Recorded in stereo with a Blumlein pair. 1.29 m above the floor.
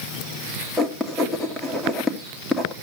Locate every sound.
0.8 s writing: 5° right, 2.5 m